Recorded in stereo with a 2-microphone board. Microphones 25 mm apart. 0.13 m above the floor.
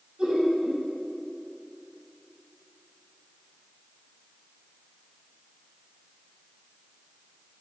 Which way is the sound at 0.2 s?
35° right (ahead or behind).